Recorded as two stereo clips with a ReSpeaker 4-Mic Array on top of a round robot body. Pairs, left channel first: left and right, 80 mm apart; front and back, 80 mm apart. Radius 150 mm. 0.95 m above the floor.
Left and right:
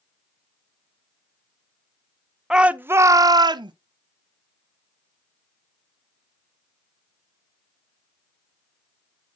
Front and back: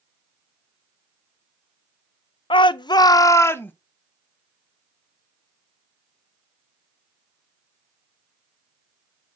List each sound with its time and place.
2.5 s a shout: 5° right, 0.6 m; by 3.7 s 65° right, 0.7 m